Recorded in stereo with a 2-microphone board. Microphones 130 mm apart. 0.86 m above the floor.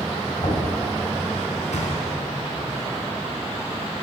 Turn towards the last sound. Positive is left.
turn(degrees=75)  # may be behind; listen again after turning